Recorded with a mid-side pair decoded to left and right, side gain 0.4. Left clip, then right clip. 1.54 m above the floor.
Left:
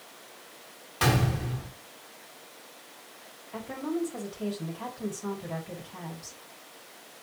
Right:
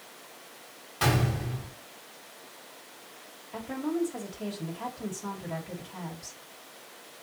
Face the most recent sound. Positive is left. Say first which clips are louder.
# right 1 dB
turn(degrees=5)